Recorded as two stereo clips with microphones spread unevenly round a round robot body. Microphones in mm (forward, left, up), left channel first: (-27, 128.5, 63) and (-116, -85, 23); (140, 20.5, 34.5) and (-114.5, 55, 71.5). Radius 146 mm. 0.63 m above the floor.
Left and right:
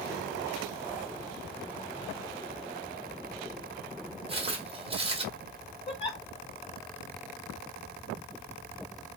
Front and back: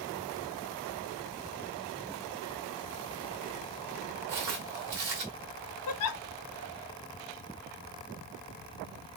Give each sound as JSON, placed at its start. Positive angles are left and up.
{"t": 4.3, "sound": "footsteps", "azimuth_deg": 180, "distance_m": 1.0}
{"t": 5.9, "sound": "a giggle", "azimuth_deg": -5, "distance_m": 0.5}